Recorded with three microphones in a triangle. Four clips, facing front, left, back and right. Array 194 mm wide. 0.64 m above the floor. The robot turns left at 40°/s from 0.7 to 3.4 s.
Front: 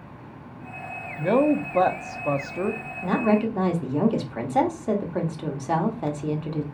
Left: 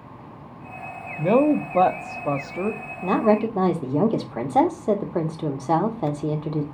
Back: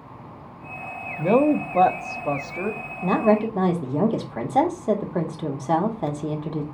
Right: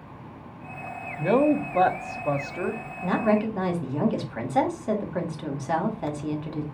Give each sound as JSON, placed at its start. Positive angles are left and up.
{"t": 1.2, "sound": "a woman speaking", "azimuth_deg": 125, "distance_m": 0.5}
{"t": 3.0, "sound": "a woman speaking", "azimuth_deg": 125, "distance_m": 0.9}